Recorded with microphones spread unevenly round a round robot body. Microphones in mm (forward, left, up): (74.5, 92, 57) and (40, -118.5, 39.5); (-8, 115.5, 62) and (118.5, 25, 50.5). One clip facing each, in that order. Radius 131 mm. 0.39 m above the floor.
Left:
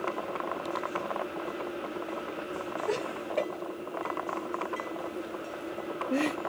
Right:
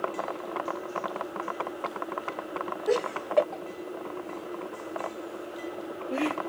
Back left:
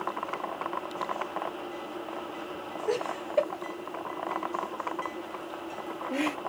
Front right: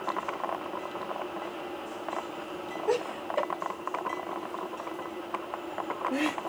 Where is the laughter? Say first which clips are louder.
Right 7 dB, front right 1 dB; 110° right, 2 m; by 6.4 s 50° left, 1.2 m.